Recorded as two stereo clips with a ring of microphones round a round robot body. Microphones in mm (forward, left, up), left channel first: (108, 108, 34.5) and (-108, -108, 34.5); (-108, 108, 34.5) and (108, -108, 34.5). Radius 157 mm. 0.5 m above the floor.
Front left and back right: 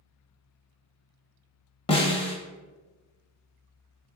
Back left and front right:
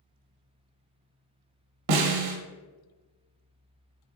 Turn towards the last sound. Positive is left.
turn(degrees=-30)